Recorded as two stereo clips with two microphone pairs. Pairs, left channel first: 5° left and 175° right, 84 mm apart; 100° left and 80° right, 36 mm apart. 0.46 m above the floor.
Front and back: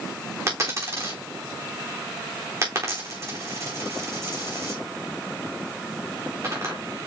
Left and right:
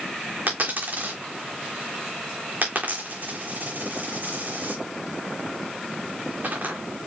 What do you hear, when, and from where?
0.5 s a dropped coin: 115° right, 3.5 m